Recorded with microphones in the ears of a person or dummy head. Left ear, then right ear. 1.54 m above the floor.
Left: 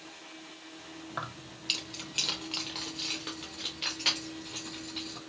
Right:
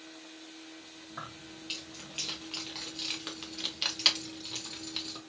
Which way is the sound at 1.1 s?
45° left (ahead or behind).